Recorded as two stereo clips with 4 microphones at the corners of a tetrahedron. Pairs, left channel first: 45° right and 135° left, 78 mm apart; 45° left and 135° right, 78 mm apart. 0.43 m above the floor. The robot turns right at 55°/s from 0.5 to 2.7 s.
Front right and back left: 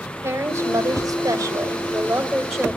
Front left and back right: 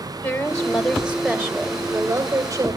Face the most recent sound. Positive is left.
turn(degrees=-125)